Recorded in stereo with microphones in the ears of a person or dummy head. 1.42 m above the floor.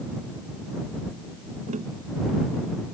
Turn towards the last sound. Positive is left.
turn(degrees=-40)  # may be behind; listen again after turning